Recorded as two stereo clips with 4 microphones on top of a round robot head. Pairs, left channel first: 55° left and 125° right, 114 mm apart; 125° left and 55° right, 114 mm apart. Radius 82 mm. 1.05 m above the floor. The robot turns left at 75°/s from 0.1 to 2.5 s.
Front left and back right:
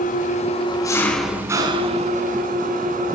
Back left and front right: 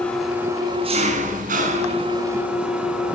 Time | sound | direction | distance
0.0 | an engine running | 45° left | 4.5 m